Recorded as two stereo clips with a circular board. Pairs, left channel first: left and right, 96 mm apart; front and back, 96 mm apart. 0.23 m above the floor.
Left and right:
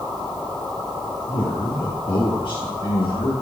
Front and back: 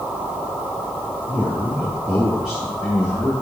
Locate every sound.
1.3 s a man speaking: 115° left, 3.5 m; by 3.3 s 70° left, 3 m